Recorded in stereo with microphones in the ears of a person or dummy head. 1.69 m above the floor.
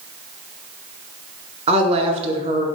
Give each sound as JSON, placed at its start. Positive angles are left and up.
{"t": 1.7, "sound": "a woman speaking", "side_deg": -30, "distance_m": 0.5}